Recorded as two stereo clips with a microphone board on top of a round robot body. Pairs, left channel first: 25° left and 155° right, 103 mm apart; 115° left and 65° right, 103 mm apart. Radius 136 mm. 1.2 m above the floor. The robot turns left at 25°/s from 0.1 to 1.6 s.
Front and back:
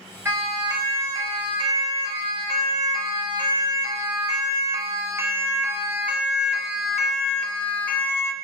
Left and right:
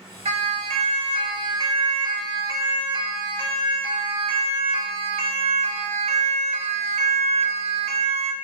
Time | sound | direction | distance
0.2 | a siren | 90° right | 7 m